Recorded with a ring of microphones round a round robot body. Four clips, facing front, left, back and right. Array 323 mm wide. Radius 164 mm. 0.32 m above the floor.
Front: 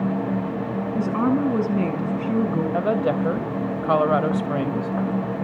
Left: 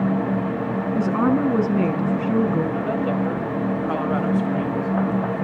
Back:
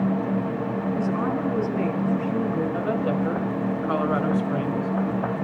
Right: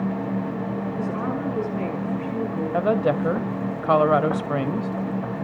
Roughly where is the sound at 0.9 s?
Ahead left.